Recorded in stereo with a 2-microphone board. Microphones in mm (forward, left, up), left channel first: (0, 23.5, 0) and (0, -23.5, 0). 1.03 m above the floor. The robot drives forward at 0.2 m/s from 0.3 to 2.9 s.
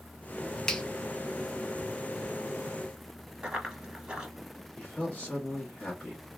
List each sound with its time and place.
0.7 s a finger snap: 15° left (ahead or behind), 0.5 m
3.4 s running footsteps: 15° right (ahead or behind), 1.0 m
4.8 s a man speaking: 35° left (ahead or behind), 1.3 m